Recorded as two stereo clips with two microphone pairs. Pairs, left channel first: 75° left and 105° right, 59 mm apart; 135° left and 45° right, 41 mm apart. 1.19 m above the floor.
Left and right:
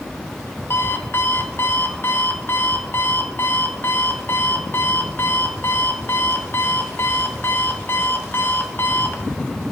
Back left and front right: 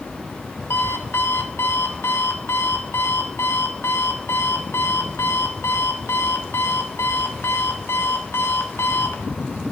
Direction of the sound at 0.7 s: 120° left.